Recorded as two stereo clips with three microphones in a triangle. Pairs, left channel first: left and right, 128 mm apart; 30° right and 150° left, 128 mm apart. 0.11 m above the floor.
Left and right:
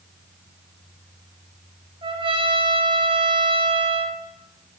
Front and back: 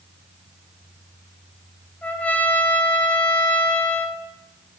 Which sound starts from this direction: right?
A trumpet, at 2.0 s.